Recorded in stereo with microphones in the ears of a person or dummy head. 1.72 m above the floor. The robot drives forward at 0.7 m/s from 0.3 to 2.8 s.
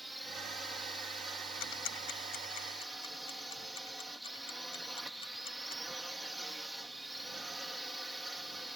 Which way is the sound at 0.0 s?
5° right (ahead or behind).